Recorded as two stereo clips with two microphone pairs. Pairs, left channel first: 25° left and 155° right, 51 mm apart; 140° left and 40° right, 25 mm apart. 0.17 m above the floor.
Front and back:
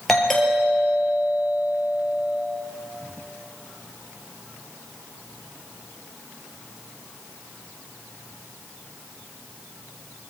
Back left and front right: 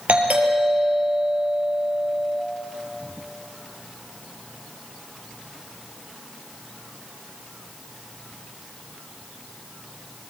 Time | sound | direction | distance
0.1 | a doorbell | 60° right | 4.5 m